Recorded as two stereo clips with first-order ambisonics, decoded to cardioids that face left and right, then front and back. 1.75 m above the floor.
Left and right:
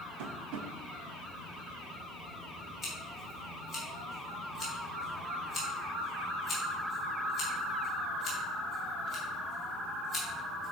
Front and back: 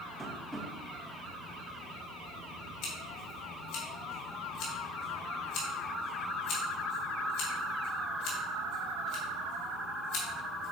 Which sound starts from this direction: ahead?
Scissors, at 2.8 s.